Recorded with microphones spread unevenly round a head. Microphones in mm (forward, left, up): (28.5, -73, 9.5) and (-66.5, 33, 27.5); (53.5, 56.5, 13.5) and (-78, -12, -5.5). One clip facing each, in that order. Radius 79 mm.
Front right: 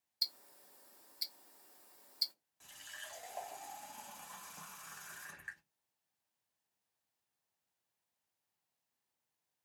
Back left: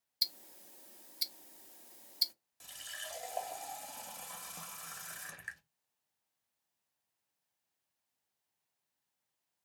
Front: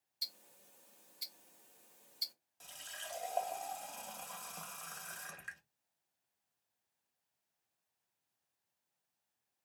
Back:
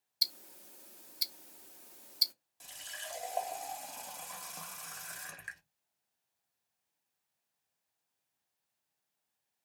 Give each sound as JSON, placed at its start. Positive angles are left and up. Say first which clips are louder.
{"t": 0.2, "sound": "ticking", "louder": "back left 4 dB, back 8 dB", "azimuth_deg": -165, "distance_m": 0.5}
{"t": 2.6, "sound": "a running tap", "louder": "back left 5 dB, back 3 dB", "azimuth_deg": 125, "distance_m": 0.7}